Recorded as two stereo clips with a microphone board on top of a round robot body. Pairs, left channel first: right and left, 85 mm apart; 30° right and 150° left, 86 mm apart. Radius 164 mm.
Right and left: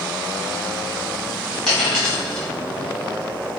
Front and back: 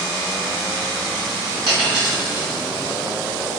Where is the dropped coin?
Straight behind, 1.7 m.